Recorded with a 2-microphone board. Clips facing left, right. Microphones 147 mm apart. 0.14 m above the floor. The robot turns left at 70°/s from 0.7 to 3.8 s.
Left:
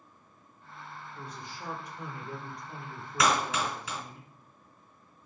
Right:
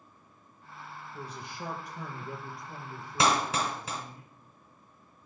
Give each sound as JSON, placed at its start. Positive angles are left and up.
{"t": 1.1, "sound": "a man speaking", "azimuth_deg": -75, "distance_m": 3.5}
{"t": 3.2, "sound": "a clap", "side_deg": -30, "distance_m": 1.6}